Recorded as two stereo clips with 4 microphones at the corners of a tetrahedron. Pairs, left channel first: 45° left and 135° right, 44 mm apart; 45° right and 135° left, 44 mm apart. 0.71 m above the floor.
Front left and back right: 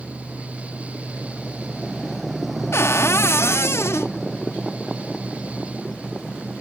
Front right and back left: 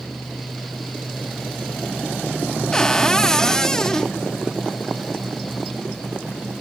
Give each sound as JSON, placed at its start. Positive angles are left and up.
{"t": 2.7, "sound": "a cupboard door", "azimuth_deg": 30, "distance_m": 0.6}